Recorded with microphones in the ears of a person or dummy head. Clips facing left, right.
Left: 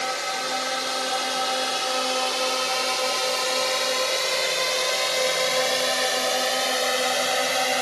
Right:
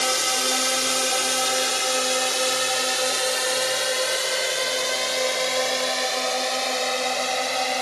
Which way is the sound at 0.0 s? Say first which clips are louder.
Right 3 dB; 50° right (ahead or behind).